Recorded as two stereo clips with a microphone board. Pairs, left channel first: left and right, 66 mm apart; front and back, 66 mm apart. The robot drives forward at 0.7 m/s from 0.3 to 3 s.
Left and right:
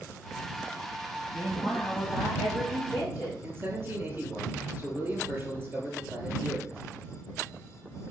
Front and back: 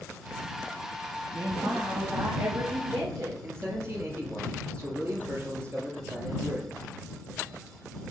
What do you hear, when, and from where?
1.3 s a woman speaking: 170° right, 3 m; by 3.3 s 175° right, 4 m
3.4 s a man speaking: 140° right, 2.5 m